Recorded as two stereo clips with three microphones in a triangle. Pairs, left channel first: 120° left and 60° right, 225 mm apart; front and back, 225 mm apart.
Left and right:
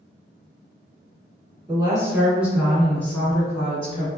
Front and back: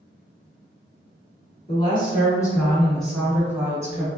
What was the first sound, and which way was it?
A woman speaking, 15° right.